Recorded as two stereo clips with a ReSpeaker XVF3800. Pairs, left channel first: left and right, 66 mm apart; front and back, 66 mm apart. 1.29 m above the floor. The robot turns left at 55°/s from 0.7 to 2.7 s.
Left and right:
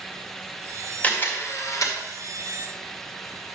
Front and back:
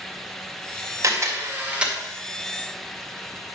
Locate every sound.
1.0 s a camera shutter: 155° left, 1.8 m; by 2.0 s 105° left, 1.8 m